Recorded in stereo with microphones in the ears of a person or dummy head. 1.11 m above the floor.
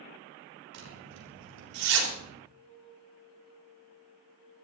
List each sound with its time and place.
0.7 s a zipper: 80° right, 4 m
2.5 s a flute: 35° left (ahead or behind), 8.5 m